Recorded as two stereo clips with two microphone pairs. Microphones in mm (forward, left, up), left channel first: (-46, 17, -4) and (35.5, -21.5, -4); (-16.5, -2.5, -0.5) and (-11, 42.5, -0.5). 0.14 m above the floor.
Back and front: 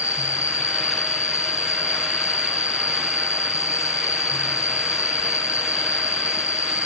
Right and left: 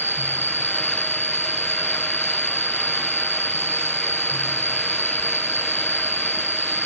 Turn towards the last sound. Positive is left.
turn(degrees=50)